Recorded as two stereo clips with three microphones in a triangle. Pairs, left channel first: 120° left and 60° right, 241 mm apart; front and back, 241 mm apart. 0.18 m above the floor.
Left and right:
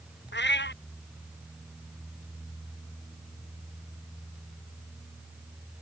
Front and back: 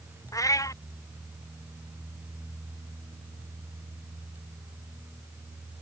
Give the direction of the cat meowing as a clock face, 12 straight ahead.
9 o'clock.